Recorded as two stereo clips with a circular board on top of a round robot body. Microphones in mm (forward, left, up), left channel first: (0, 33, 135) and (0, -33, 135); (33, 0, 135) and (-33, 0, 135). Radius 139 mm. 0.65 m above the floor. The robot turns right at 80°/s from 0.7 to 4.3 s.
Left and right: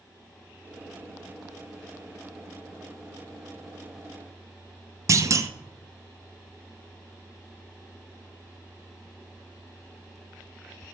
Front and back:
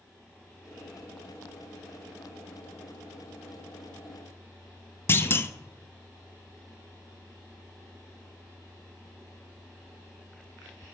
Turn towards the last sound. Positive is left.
turn(degrees=-50)